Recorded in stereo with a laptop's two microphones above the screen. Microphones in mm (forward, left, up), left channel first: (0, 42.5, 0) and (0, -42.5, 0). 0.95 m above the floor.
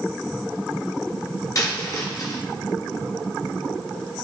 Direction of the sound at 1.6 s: 45° left (ahead or behind).